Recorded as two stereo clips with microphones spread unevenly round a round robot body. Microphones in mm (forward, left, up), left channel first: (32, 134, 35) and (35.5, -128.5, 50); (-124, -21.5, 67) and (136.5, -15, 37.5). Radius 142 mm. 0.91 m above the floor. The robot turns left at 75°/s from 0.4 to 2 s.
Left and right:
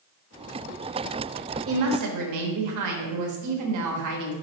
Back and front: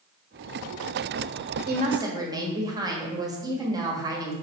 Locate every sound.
1.7 s a woman speaking: 50° right, 1.2 m; by 4.3 s 75° right, 1.2 m